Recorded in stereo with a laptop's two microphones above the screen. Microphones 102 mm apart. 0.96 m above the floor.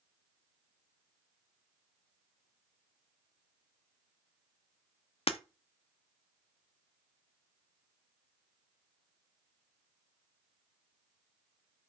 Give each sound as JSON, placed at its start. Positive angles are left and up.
{"t": 5.3, "sound": "breaking glass", "side_deg": 70, "distance_m": 0.8}